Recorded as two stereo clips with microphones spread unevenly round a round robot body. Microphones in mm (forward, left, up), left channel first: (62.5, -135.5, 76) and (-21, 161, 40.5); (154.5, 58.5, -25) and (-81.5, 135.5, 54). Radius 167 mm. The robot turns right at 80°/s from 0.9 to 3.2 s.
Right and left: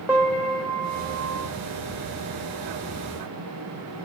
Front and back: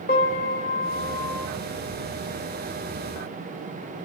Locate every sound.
0.1 s a piano: 25° left, 2.5 m; by 1.5 s 70° left, 2.5 m